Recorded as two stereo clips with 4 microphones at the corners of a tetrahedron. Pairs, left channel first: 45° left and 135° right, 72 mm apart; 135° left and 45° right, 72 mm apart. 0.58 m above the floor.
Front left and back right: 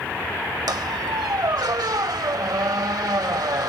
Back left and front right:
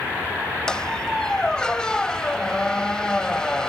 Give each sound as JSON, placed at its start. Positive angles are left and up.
{"t": 0.7, "sound": "a squeak", "azimuth_deg": -145}